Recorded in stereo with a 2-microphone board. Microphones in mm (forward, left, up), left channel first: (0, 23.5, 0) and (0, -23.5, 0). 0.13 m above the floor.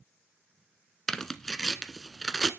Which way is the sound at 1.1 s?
10° left (ahead or behind).